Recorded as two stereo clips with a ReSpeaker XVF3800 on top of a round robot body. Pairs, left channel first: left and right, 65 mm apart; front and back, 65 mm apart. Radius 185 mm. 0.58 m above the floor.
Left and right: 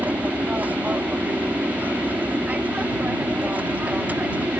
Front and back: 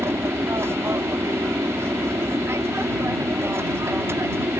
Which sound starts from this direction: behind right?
An aircraft, at 0.0 s.